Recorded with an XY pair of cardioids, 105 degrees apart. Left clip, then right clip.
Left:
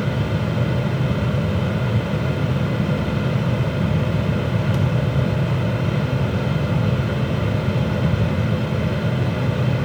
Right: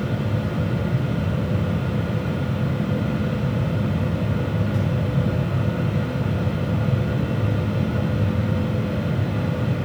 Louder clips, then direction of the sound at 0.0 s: Left 3 dB; 70° left.